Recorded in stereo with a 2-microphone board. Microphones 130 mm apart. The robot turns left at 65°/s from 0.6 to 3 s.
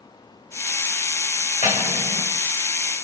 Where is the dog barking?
I don't hear a dog barking.